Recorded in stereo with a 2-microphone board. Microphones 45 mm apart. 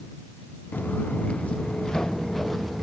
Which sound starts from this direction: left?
Footsteps, at 0.7 s.